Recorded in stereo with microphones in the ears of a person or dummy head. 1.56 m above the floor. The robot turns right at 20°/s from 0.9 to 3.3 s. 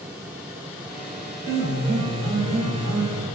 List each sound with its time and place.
1.4 s a piano: 170° right, 1.7 m; by 3.2 s 135° right, 1.7 m